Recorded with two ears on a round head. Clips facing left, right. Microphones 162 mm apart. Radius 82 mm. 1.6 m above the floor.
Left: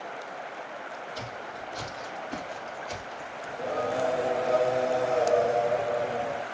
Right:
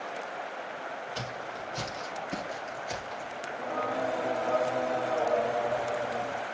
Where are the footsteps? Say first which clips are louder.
Even; 35° right (ahead or behind), 2 m; by 3.4 s 10° right (ahead or behind), 1.6 m.